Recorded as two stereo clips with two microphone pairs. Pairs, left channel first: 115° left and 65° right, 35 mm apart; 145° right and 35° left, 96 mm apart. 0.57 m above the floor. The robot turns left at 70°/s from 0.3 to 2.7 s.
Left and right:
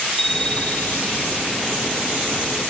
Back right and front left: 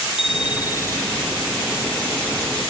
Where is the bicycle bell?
165° right; by 1.2 s 130° left.